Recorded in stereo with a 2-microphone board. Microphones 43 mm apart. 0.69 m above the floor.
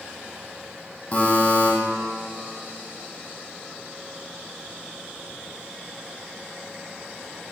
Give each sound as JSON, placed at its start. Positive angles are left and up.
{"t": 1.1, "sound": "a buzzer", "side_deg": 35, "distance_m": 3.5}